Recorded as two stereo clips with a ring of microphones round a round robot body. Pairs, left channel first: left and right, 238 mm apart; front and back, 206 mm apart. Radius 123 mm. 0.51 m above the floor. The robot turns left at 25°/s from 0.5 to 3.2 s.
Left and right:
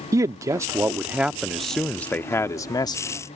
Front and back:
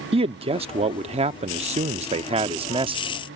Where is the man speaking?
155° right; by 3.0 s 145° left.